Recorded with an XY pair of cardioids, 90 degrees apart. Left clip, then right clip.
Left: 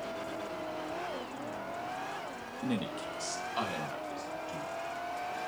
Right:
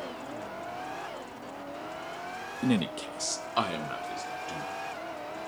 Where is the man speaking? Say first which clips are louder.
Right 6 dB; 55° right, 0.9 m; by 4.7 s 60° right, 3.5 m.